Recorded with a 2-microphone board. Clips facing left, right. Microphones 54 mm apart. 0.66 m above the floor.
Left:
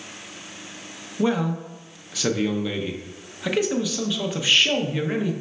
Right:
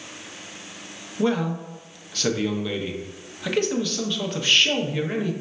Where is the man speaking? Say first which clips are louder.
Even; 10° left (ahead or behind), 0.5 m.